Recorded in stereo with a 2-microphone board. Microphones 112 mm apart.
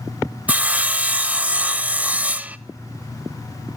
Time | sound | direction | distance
0.5 | sawing | 15° right (ahead or behind) | 0.6 m